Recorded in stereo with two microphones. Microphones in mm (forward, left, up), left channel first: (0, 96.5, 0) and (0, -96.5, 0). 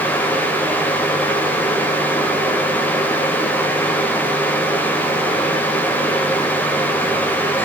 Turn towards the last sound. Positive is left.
No sound to turn to.